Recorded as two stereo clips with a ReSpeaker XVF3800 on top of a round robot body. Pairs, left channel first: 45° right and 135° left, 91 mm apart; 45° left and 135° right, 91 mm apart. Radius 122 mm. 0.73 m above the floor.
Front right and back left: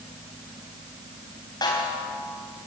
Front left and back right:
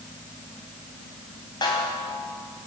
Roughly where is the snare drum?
Ahead.